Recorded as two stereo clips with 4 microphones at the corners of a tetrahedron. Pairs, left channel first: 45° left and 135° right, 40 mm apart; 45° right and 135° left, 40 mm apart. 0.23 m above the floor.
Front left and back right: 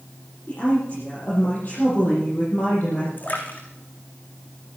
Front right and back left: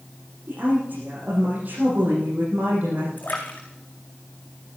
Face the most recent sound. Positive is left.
turn(degrees=0)